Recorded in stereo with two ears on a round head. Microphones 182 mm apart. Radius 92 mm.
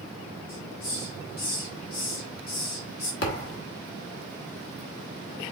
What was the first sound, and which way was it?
A hiss, 45° left (ahead or behind).